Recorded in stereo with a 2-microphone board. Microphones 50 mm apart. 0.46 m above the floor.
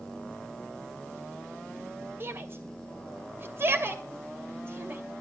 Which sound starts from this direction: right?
A shout, at 2.2 s.